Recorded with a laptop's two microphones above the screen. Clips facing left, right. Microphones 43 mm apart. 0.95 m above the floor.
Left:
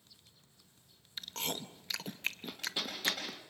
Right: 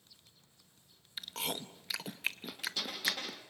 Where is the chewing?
5° right (ahead or behind), 0.7 m.